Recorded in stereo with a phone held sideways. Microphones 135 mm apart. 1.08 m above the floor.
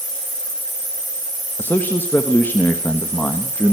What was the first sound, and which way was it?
A man speaking, 15° left (ahead or behind).